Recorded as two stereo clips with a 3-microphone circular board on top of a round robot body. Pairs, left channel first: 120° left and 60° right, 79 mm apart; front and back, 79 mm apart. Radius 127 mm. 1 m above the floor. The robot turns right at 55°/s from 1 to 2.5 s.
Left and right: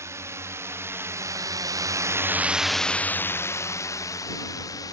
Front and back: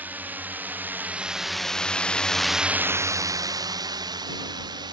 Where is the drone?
110° right; by 4.9 s 160° left.